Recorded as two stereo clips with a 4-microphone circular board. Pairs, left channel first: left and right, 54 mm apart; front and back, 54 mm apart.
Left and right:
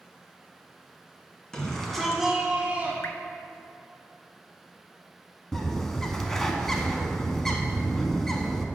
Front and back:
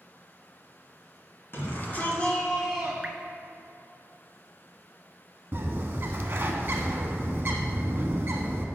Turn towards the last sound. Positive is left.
turn(degrees=170)